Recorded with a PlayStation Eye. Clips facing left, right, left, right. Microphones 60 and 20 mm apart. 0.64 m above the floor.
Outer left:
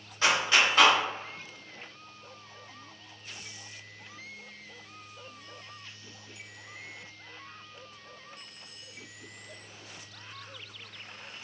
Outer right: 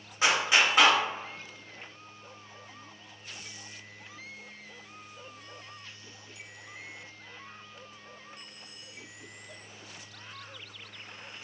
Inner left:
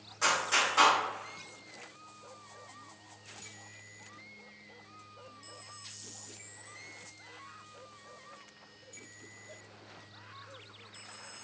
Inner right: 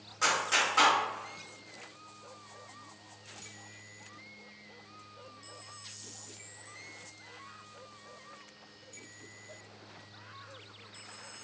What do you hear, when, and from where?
0.2 s a clap: 15° right (ahead or behind), 1.1 m